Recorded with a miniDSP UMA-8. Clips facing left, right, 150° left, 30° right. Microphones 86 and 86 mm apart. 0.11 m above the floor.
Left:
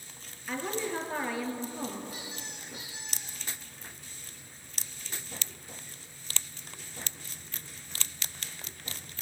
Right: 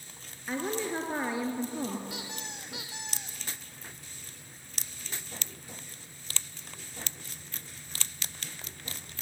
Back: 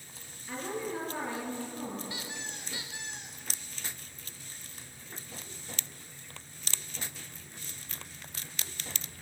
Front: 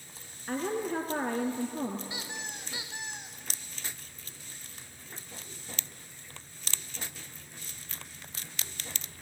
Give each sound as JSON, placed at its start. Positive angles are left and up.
{"t": 0.5, "sound": "a woman speaking", "azimuth_deg": -25, "distance_m": 2.5}
{"t": 2.1, "sound": "a squeak", "azimuth_deg": -100, "distance_m": 3.0}